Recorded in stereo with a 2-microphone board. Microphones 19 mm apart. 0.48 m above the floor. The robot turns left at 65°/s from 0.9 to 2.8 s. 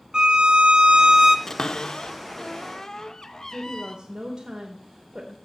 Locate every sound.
0.1 s a violin: 50° right (ahead or behind), 0.6 m; by 1.4 s 20° right (ahead or behind), 0.6 m
1.5 s a cupboard door: 25° left (ahead or behind), 0.5 m; by 4.0 s 30° left (ahead or behind), 0.5 m
3.5 s a woman speaking: 40° right (ahead or behind), 1.1 m